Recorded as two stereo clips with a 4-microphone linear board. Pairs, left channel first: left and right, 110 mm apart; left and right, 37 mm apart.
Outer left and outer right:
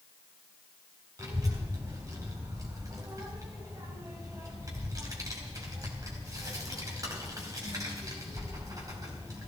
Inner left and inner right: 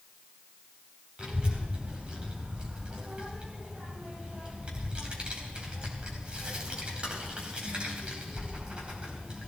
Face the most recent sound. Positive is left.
turn(degrees=-30)  # may be behind; listen again after turning